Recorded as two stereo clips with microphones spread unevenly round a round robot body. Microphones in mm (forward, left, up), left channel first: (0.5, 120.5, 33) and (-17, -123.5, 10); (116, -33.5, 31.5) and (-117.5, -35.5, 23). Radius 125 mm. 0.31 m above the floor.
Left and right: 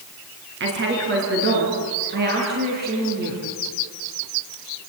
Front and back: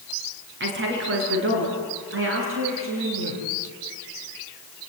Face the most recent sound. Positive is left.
turn(degrees=-150)